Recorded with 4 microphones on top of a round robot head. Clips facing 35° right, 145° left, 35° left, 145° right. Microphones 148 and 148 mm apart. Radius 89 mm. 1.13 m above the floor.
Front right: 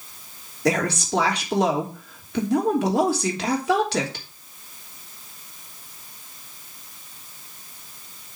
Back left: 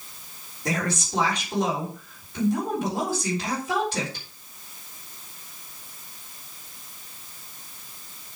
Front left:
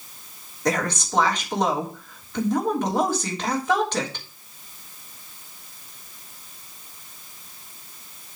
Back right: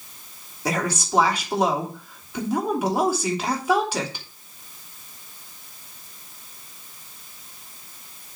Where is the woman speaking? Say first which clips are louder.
Front right 6 dB, front left 1 dB; 65° right, 3 m.